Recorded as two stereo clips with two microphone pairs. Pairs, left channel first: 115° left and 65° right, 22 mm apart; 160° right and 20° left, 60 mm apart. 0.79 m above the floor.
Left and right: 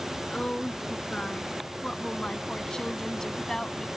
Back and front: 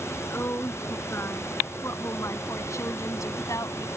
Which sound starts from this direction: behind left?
A woman speaking, at 0.3 s.